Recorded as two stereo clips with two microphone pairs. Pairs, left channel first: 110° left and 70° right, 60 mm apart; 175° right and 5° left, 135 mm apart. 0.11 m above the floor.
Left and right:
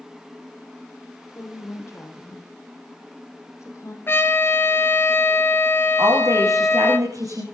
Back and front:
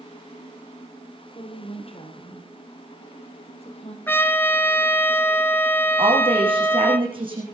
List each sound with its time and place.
1.4 s a woman speaking: 145° left, 4 m
4.1 s a trumpet: 120° left, 1.4 m
6.0 s a woman speaking: 50° right, 7.5 m